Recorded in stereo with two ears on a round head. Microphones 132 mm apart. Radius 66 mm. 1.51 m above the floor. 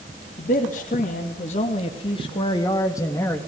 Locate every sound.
0.4 s a man speaking: 65° left (ahead or behind), 3 m; by 3.4 s 15° left (ahead or behind), 2.5 m